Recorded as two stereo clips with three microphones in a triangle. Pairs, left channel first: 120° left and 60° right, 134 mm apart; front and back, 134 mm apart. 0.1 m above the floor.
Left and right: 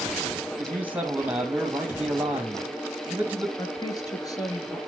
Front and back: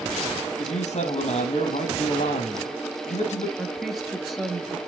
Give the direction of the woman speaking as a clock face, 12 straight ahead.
9 o'clock.